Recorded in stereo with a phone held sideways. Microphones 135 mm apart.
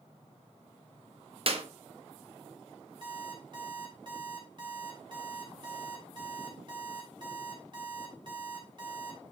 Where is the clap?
50° right (ahead or behind), 1.1 m.